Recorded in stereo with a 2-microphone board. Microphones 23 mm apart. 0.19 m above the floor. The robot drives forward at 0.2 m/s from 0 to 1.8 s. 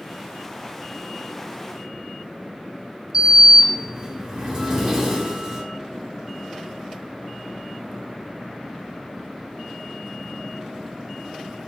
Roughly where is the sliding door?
Centre.